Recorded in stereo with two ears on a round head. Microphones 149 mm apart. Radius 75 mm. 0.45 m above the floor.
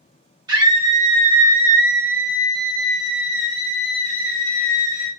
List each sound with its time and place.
0.5 s a scream: 25° right (ahead or behind), 1.6 m; by 5.1 s 15° left (ahead or behind), 1.8 m